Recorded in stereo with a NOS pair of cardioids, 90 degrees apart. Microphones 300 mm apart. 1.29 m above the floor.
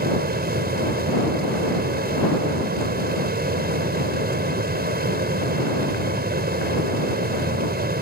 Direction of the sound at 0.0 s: 30° right.